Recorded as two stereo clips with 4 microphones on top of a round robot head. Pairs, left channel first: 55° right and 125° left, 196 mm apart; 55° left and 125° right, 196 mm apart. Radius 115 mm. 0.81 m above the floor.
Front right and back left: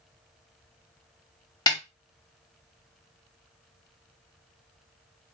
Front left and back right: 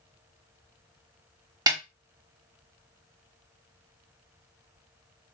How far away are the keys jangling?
No keys jangling in this recording.